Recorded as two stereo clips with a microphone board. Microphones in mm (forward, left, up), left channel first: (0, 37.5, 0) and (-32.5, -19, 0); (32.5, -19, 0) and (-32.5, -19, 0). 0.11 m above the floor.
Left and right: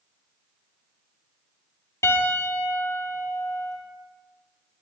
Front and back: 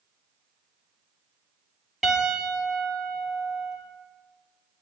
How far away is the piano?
About 2.5 m.